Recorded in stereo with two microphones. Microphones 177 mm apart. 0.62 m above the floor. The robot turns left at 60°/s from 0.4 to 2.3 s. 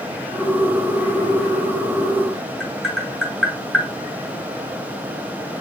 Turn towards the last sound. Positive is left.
turn(degrees=0)  # may be behind; listen again after turning